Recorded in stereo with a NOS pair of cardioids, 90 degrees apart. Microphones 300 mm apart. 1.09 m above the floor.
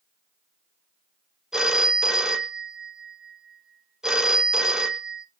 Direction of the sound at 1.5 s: Straight ahead.